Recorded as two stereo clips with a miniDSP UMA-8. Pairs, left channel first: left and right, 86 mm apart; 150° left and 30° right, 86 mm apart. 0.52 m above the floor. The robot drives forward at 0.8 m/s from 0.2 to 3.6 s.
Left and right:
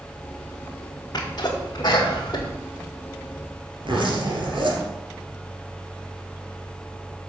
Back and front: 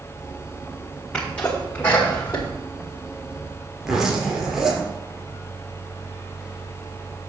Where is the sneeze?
75° left, 1.9 m; by 2.5 s 120° left, 2 m.